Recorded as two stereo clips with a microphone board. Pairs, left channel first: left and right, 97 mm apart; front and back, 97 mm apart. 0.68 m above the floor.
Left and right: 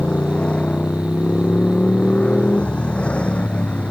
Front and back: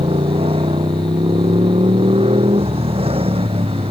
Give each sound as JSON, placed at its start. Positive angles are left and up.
{"t": 0.0, "sound": "a motorcycle", "azimuth_deg": 170}